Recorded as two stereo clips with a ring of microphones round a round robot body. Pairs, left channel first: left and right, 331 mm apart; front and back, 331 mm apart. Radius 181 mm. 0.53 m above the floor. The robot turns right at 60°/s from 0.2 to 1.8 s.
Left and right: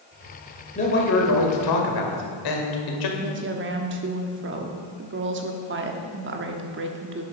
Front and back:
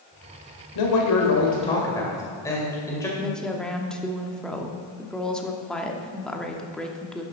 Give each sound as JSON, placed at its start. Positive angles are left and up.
{"t": 0.8, "sound": "a man speaking", "azimuth_deg": 20, "distance_m": 2.0}
{"t": 3.2, "sound": "a woman speaking", "azimuth_deg": -85, "distance_m": 1.2}